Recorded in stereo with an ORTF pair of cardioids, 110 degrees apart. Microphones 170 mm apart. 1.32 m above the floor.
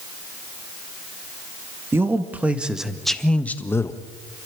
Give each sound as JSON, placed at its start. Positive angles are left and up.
{"t": 1.9, "sound": "a man speaking", "azimuth_deg": -15, "distance_m": 1.9}